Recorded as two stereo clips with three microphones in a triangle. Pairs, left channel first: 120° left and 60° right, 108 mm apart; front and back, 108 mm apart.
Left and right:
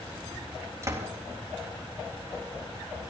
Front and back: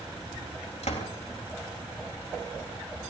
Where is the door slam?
Straight ahead, 3.5 m.